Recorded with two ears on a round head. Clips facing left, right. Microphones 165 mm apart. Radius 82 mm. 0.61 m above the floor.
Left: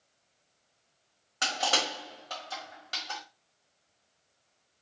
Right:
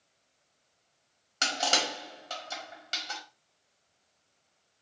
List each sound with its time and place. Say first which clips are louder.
1.4 s crushing: even; 30° right (ahead or behind), 1.6 m